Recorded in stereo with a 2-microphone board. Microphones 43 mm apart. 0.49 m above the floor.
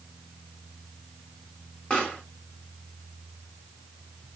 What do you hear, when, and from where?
1.9 s a pop: 25° left (ahead or behind), 1.5 m